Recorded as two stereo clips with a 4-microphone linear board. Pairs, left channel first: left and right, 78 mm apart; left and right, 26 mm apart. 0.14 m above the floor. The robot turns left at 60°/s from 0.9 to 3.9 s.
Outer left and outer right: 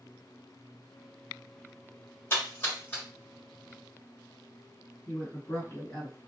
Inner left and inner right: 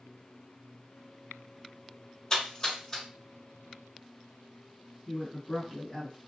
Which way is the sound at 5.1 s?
35° left (ahead or behind).